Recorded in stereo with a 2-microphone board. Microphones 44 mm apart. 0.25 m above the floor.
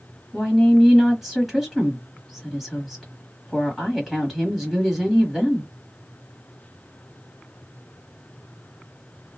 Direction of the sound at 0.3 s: 5° right (ahead or behind).